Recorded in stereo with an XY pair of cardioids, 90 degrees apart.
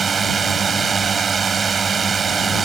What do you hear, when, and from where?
0.0 s a drone: 45° right